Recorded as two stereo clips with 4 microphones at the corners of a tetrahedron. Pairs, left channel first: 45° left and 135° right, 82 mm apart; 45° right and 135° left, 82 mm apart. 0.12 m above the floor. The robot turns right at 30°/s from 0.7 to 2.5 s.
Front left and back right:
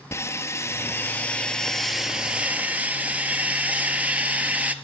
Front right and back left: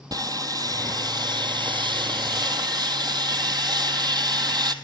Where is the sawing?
100° left, 1.1 m; by 4.8 s 155° left, 1.1 m.